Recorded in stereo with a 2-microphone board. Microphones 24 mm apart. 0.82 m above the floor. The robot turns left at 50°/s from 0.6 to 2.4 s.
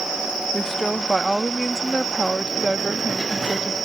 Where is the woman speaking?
25° left; by 3.8 s 65° right.